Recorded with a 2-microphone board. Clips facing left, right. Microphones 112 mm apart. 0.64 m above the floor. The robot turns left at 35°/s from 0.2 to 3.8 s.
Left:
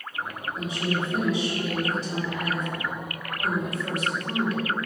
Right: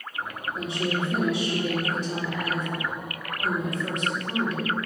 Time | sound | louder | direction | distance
0.6 | a woman speaking | even | 70° right | 1.6 m